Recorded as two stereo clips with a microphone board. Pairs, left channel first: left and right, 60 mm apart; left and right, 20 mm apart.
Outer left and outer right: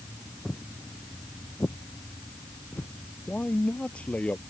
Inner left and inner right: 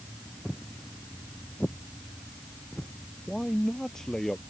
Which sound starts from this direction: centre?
Footsteps, at 0.5 s.